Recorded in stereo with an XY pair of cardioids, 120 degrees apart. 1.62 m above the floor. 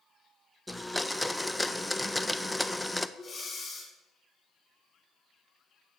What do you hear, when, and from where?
0.7 s a blender: straight ahead, 0.5 m
3.2 s breathing: 30° left, 5.5 m